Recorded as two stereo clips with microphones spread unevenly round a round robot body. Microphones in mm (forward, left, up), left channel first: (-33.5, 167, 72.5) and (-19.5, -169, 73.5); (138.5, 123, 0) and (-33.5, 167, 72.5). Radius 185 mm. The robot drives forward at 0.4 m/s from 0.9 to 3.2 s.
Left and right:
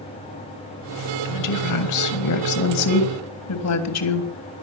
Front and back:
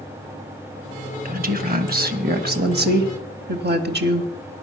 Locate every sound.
1.2 s a woman speaking: 115° left, 2.5 m; by 4.3 s 130° left, 3 m